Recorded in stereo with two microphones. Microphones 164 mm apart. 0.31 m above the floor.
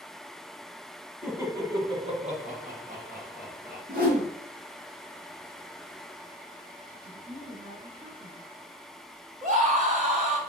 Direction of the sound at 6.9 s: 65° right (ahead or behind).